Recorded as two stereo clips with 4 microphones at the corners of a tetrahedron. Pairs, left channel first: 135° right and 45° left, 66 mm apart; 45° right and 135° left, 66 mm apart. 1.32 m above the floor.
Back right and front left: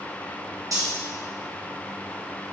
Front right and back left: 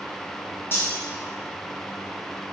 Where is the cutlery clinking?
10° left, 2.5 m.